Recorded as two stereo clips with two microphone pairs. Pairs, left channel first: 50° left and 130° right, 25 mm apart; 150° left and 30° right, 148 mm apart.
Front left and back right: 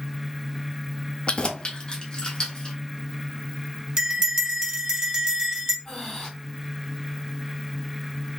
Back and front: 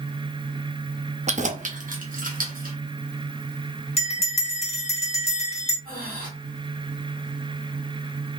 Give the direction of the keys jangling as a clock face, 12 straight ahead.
12 o'clock.